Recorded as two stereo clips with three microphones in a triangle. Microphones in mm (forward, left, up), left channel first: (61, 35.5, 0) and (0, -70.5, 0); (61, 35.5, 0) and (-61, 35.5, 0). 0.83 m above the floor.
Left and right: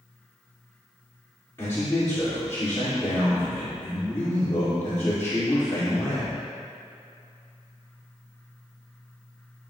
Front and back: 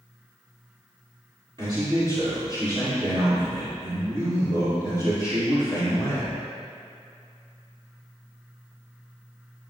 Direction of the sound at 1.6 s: 130° left.